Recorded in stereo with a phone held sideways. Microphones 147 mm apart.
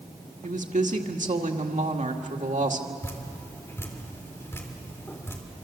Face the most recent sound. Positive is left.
turn(degrees=20)  # may be behind; listen again after turning